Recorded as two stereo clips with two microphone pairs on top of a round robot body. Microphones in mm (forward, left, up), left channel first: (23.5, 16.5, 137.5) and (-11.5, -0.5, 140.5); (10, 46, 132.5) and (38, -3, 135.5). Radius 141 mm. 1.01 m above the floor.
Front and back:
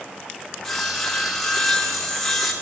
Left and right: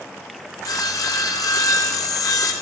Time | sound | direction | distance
0.6 | sawing | 110° left | 0.6 m